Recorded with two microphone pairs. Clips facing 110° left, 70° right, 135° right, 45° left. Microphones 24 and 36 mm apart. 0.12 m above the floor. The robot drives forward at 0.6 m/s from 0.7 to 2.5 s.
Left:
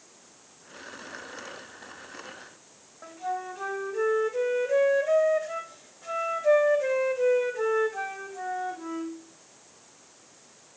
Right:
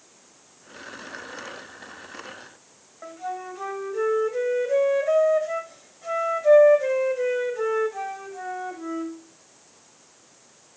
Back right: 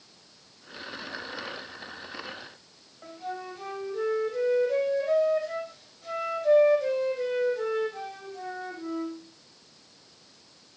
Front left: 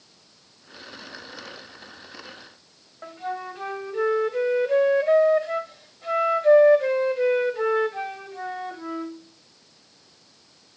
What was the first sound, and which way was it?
A flute, straight ahead.